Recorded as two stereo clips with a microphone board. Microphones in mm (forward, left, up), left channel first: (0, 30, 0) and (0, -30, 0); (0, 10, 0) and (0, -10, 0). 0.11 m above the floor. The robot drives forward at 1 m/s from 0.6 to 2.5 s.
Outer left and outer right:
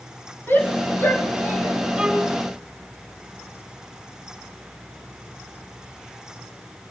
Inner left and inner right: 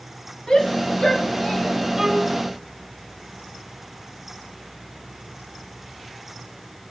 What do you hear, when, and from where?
0.5 s a shout: 40° left (ahead or behind), 4.5 m; by 1.8 s 50° left (ahead or behind), 4 m
2.0 s a violin: 15° right (ahead or behind), 4 m